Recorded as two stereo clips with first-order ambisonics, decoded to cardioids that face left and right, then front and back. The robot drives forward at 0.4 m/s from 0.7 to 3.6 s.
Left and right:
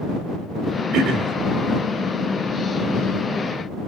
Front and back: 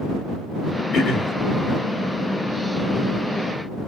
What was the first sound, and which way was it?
Throat clearing, 50° right.